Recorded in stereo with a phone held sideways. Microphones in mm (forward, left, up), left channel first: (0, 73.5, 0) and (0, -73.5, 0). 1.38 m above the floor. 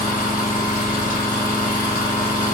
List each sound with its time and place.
0.0 s an engine running: 70° left (ahead or behind), 1.1 m